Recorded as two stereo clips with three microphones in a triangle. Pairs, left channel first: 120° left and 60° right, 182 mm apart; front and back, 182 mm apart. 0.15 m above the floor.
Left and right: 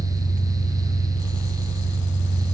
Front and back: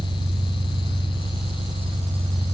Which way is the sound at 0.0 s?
120° left.